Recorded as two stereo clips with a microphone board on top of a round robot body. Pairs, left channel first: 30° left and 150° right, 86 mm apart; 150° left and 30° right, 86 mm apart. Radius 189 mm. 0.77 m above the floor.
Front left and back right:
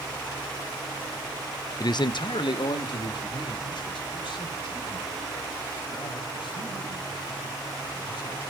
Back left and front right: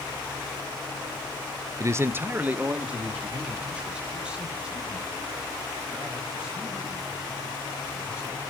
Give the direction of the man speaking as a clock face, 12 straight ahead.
12 o'clock.